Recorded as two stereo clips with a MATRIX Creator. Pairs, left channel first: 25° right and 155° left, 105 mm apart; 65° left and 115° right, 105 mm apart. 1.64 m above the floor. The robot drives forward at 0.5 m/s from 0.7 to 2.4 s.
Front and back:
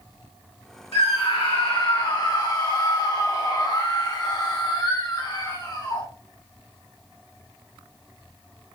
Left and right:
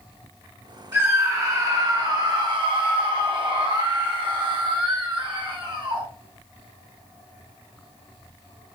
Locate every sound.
0.9 s a scream: 45° right, 1.7 m; by 6.1 s 70° right, 1.3 m